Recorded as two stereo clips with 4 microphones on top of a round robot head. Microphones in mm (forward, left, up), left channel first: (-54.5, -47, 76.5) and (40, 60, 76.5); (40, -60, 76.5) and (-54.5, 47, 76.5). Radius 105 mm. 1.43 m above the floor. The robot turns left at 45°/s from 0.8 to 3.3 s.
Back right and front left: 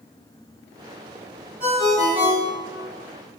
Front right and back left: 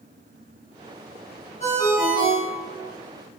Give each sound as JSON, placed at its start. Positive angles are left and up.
{"t": 1.6, "sound": "a ringtone", "azimuth_deg": 0, "distance_m": 1.0}